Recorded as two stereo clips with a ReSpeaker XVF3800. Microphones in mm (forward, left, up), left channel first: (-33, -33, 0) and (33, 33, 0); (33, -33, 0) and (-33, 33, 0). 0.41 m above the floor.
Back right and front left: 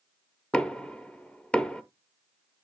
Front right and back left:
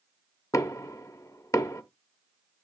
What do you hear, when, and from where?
0.5 s knocking: 60° right, 0.7 m